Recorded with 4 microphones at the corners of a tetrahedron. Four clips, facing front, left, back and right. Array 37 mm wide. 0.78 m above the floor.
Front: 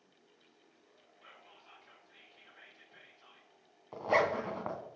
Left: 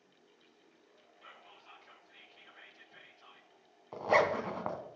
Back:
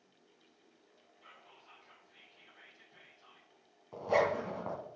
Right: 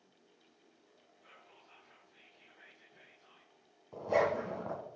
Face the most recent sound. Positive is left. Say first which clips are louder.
# left 3 dB, front 1 dB
turn(degrees=60)